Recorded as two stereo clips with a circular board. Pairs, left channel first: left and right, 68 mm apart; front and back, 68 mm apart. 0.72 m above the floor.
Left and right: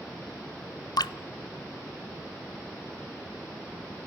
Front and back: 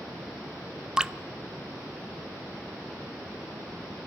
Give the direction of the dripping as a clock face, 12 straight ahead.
9 o'clock.